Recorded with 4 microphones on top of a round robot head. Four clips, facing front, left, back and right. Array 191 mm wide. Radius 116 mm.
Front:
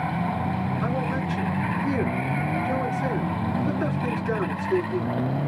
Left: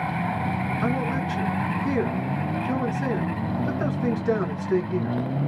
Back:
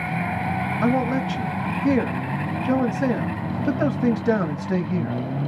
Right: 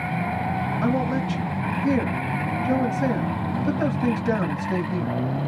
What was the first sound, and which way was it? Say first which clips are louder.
A man speaking: right 3 dB, back 5 dB; 170° right.